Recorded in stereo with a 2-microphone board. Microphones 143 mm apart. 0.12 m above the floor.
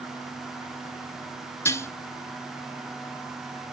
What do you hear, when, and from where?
1.6 s dishes clattering: 20° left (ahead or behind), 0.9 m